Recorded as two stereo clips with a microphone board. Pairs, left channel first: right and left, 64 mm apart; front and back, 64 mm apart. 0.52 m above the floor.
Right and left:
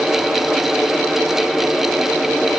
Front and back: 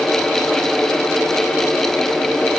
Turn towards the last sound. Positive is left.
No sound to turn to.